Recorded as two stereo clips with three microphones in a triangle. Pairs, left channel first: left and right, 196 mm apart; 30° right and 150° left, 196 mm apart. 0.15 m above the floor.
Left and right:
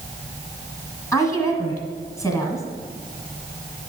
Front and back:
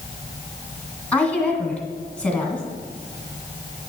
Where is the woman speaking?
45° left, 1.8 m.